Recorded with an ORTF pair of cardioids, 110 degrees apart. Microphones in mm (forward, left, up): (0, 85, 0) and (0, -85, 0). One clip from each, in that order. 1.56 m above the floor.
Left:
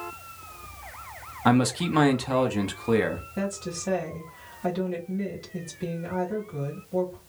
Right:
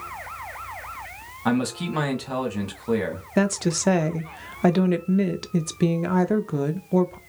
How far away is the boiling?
I don't hear boiling.